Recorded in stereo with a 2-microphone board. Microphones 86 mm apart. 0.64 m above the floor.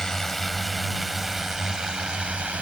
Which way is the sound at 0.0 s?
5° left (ahead or behind).